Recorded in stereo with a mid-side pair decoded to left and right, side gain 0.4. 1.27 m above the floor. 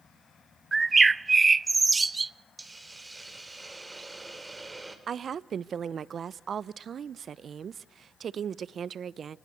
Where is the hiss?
20° right, 4 m.